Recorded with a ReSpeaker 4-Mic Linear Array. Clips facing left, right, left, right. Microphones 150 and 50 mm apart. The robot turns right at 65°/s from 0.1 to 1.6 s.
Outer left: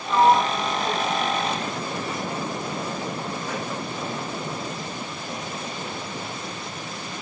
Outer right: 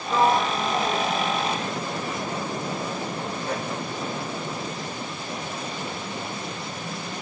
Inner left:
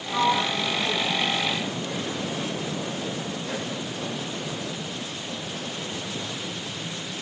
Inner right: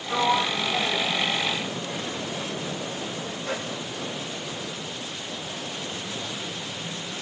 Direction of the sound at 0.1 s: 20° right (ahead or behind).